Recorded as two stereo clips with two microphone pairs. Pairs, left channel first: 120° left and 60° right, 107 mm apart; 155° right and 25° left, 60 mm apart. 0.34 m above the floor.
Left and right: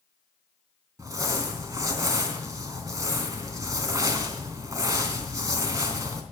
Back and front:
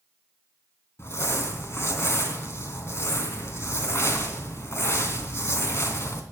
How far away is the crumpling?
About 3 m.